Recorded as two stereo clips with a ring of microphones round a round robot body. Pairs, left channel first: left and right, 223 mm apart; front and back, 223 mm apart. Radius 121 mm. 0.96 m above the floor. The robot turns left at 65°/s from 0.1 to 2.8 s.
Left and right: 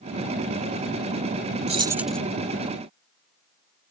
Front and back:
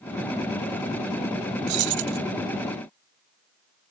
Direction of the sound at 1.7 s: 150° right.